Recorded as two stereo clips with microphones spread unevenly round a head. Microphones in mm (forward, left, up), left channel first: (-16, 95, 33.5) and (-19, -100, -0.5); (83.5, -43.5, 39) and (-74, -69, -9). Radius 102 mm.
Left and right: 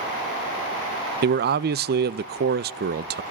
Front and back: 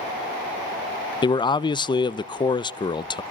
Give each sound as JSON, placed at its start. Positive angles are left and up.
{"t": 1.2, "sound": "a man speaking", "azimuth_deg": -60, "distance_m": 0.6}